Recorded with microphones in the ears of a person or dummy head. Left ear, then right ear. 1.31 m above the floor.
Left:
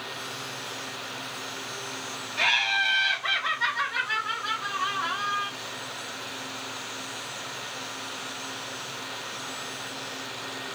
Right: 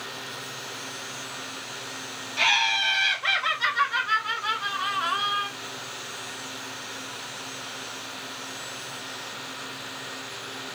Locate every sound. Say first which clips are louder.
2.4 s laughter: right 1 dB; 85° right, 3 m; by 5.5 s 60° right (ahead or behind), 1.1 m